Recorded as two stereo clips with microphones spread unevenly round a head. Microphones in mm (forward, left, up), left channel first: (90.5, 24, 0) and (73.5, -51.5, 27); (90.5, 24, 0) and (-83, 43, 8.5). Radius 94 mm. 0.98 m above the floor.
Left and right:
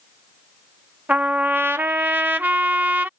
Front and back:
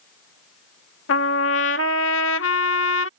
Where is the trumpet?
30° right.